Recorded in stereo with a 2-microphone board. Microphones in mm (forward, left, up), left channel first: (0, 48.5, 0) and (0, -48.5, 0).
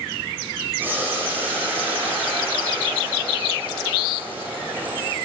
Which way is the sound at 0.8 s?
20° right (ahead or behind).